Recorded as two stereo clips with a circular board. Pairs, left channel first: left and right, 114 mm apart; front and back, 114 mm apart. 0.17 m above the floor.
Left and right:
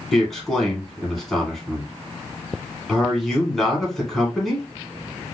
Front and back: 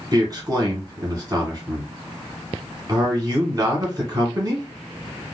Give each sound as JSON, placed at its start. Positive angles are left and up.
{"t": 0.1, "sound": "a man speaking", "azimuth_deg": 175, "distance_m": 1.4}